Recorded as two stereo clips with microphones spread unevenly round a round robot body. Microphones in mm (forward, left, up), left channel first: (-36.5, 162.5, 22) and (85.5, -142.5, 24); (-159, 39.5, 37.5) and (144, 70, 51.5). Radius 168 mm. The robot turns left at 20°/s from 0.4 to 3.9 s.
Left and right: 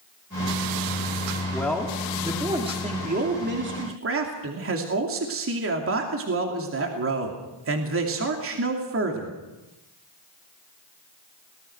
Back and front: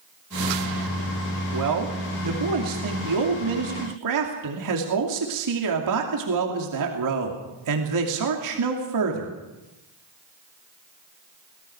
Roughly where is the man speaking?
Ahead left.